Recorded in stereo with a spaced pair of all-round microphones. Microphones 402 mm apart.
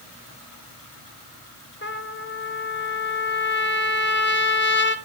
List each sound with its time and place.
1.8 s a trumpet: 30° left (ahead or behind), 0.9 m